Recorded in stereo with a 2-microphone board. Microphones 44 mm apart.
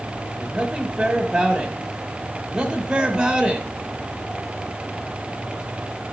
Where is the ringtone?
No ringtone in this recording.